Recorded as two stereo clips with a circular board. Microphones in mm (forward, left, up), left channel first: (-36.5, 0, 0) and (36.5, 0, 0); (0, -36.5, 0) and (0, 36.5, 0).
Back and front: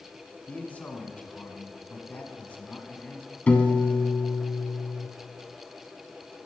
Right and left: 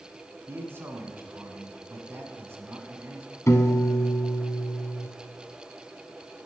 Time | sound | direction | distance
0.5 | a man speaking | 125° left | 1.5 m
3.5 | a piano | 115° right | 1.1 m